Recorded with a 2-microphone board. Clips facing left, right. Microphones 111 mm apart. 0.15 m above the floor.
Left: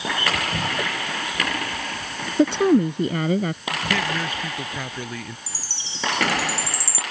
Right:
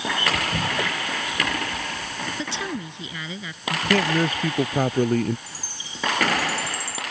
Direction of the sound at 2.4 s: 50° left (ahead or behind).